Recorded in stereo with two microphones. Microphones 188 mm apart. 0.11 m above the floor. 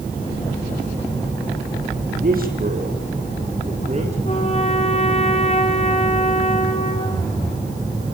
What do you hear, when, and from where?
2.2 s a man speaking: 50° right (ahead or behind), 6 m; by 4.2 s 35° right (ahead or behind), 6.5 m
4.2 s a trumpet: 35° left (ahead or behind), 2 m